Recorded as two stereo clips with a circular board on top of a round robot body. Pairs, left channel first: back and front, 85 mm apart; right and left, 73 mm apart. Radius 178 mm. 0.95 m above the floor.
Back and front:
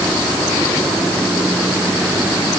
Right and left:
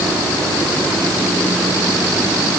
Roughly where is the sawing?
No sawing in this recording.